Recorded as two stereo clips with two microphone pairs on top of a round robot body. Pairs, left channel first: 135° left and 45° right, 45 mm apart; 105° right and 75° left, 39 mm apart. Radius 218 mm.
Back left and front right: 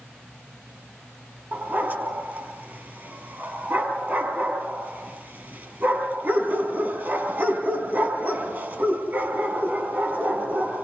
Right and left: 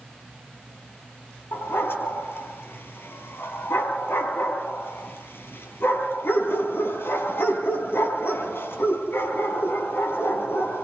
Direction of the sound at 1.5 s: 90° right.